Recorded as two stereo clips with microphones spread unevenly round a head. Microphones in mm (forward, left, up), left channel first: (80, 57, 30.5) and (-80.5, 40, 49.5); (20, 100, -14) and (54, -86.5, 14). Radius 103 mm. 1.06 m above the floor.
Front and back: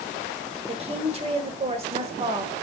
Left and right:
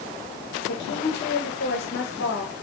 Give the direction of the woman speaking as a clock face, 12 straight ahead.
8 o'clock.